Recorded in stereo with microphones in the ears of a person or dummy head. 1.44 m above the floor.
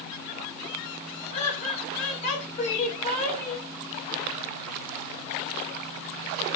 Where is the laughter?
40° left (ahead or behind), 0.7 m.